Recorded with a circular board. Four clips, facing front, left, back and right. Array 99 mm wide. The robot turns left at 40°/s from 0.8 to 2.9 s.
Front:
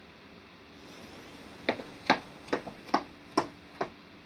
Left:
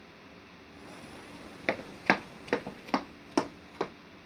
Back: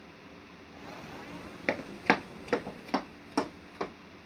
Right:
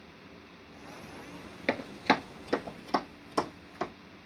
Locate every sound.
1.7 s running footsteps: 160° left, 1.1 m; by 3.9 s 90° left, 2 m